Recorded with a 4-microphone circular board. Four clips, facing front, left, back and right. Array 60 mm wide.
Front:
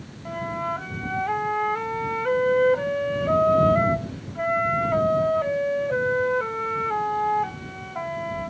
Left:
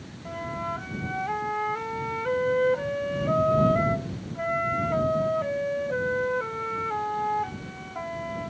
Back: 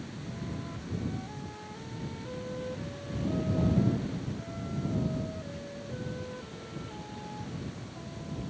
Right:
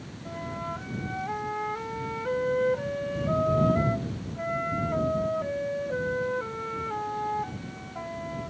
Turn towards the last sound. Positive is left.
turn(degrees=15)